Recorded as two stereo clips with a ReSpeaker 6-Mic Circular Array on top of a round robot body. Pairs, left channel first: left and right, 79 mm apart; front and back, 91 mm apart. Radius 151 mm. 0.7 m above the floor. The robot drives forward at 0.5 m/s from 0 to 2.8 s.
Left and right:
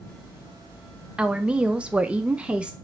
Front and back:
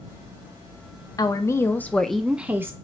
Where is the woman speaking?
15° right, 0.8 m; by 2.7 s 155° right, 0.7 m.